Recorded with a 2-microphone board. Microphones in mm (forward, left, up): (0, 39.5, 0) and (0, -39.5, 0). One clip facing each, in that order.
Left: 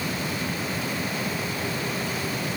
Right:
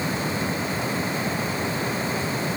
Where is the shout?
No shout in this recording.